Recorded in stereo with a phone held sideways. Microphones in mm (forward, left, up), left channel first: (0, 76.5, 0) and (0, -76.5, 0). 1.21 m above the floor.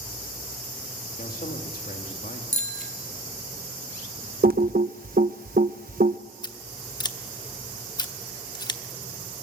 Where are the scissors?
30° left (ahead or behind), 0.8 m.